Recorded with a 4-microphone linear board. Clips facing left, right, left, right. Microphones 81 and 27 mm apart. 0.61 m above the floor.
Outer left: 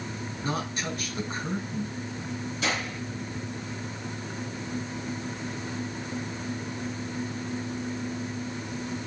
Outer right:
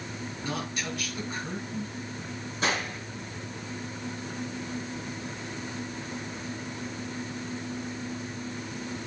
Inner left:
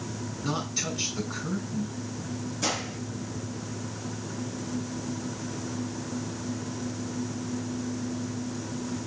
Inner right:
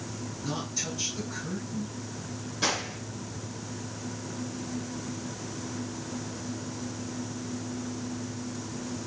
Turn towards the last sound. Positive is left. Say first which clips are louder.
# outer right 2 dB, inner right 2 dB
turn(degrees=-35)  # may be behind; listen again after turning